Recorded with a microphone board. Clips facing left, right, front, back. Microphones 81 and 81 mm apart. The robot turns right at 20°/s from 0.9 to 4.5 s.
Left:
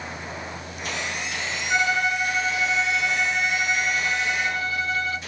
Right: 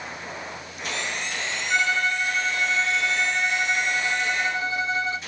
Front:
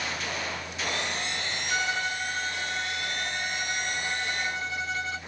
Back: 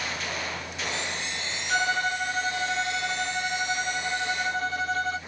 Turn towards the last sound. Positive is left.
turn(degrees=-150)